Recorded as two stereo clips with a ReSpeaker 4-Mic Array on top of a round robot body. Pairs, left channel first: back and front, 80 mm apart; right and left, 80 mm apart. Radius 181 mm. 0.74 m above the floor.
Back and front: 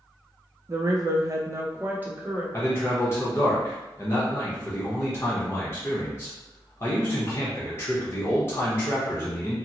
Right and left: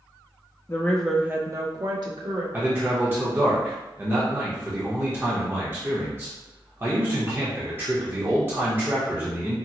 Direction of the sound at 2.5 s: 135° left.